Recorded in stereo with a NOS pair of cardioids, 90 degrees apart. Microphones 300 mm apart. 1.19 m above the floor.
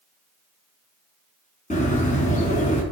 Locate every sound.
1.7 s a bird: 25° left, 3.5 m